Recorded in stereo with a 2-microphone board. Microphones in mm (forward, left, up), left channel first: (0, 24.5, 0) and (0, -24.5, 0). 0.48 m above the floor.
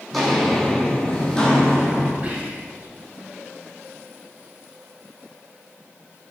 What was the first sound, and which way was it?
Footsteps, centre (ahead or behind).